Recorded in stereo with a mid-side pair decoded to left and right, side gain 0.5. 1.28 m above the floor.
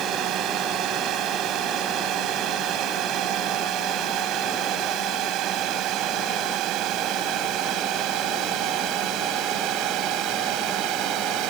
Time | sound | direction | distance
0.0 | a drone | 65° right | ?